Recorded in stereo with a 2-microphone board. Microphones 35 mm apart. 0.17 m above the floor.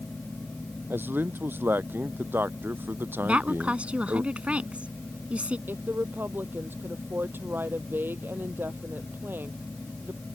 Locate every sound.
0.9 s a man speaking: 80° right
3.2 s a woman speaking: 35° right (ahead or behind)
5.7 s a woman speaking: 75° right (ahead or behind)